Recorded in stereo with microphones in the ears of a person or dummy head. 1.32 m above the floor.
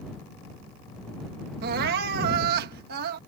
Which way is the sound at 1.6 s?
60° right (ahead or behind).